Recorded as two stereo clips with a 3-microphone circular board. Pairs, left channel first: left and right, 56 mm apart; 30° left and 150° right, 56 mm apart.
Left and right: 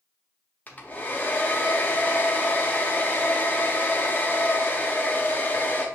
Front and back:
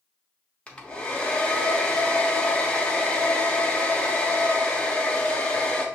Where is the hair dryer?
75° left, 0.7 m.